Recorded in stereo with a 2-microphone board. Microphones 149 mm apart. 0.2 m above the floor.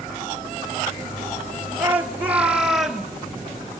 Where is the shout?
15° right (ahead or behind), 4 m; by 3.1 s centre (ahead or behind), 3 m.